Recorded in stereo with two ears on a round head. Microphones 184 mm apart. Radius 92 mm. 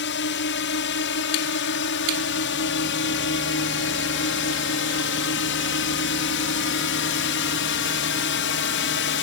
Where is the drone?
60° left (ahead or behind).